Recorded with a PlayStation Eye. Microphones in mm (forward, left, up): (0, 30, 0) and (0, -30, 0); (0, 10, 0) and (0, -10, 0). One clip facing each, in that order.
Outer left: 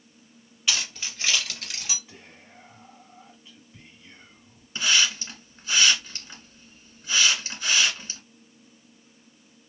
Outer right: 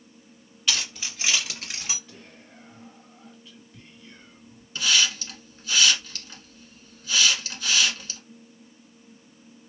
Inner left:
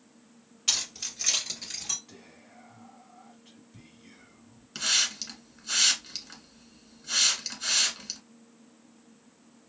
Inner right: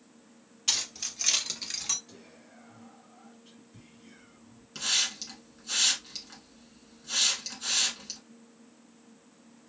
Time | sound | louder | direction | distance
0.7 | keys jangling | even, inner left 1 dB | 5° left (ahead or behind) | 1.4 m
2.1 | whispering | outer right 1 dB, even | 10° left (ahead or behind) | 1.8 m
4.8 | a hiss | even, inner left 2 dB | 25° left (ahead or behind) | 1.1 m